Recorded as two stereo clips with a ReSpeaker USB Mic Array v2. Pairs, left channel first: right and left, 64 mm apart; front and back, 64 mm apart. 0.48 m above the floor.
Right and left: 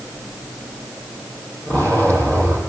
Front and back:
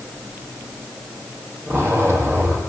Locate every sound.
1.7 s a zipper: 125° right, 6 m